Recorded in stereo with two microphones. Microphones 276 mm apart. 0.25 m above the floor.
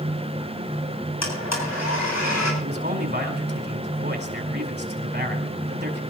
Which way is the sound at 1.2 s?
70° left (ahead or behind).